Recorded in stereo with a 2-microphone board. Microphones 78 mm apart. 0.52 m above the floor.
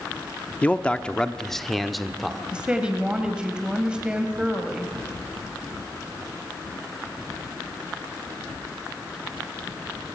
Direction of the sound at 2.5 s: 15° right (ahead or behind).